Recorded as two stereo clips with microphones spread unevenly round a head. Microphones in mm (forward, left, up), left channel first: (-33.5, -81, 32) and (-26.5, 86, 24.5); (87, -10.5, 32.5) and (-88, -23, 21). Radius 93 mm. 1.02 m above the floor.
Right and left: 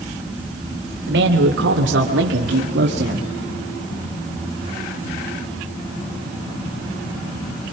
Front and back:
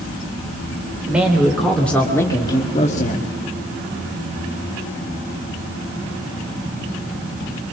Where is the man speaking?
100° left, 3 m; by 3.3 s 45° left, 1.6 m.